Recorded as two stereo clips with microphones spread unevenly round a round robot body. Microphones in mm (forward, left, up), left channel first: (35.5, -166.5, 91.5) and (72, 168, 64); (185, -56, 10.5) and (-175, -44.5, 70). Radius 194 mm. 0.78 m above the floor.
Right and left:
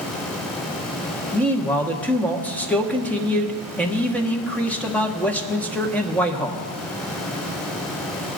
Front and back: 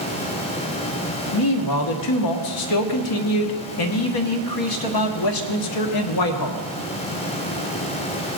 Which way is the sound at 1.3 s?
10° right.